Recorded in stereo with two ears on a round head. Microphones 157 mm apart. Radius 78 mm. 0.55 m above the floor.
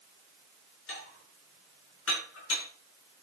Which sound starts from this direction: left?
Dishes clattering, at 0.9 s.